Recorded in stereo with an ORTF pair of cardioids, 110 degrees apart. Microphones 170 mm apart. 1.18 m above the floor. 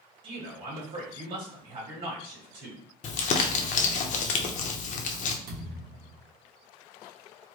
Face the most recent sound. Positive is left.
turn(degrees=-65)